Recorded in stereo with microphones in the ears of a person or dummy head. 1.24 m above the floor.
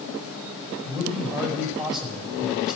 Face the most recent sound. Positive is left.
turn(degrees=0)  # may be behind; listen again after turning